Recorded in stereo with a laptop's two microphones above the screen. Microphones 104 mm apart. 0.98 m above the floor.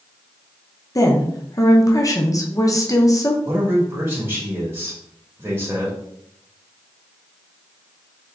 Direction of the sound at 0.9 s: 35° left (ahead or behind).